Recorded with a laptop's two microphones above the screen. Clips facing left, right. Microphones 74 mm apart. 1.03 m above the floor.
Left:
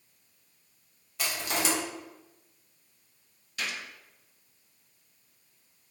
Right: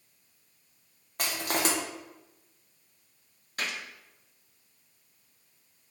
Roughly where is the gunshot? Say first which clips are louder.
Right 1 dB; right.